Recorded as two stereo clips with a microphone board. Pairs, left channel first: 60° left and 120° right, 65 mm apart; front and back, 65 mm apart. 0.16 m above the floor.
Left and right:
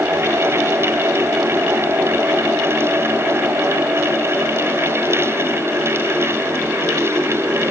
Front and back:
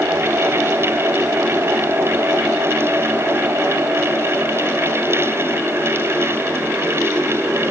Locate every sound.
Only background noise.